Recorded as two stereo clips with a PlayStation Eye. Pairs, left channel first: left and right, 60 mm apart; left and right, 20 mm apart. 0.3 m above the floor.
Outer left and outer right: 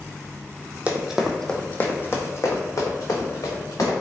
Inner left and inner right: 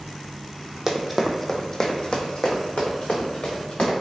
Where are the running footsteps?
20° right (ahead or behind), 0.6 m; by 3.9 s 70° left (ahead or behind), 1.7 m.